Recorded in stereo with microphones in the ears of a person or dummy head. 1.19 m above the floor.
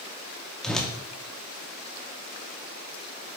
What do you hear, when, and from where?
0.6 s a whoosh: centre (ahead or behind), 1.0 m